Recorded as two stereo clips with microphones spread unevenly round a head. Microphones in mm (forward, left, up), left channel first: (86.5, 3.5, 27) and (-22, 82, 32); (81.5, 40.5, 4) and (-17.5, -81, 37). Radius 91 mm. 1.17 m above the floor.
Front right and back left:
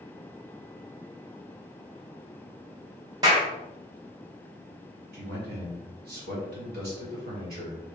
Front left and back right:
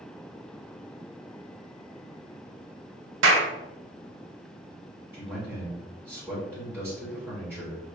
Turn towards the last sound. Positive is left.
turn(degrees=150)